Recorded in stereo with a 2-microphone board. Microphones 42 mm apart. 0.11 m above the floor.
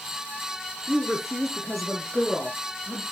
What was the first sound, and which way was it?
A woman speaking, 15° right (ahead or behind).